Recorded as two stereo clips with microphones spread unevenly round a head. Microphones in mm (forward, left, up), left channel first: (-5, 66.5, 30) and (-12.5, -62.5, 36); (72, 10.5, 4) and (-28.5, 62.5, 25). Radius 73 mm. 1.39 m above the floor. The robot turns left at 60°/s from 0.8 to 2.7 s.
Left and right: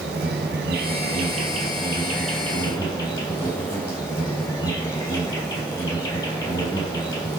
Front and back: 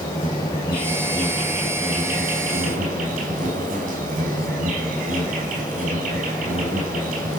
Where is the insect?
85° right, 3.5 m; by 7.4 s 160° left, 3.5 m.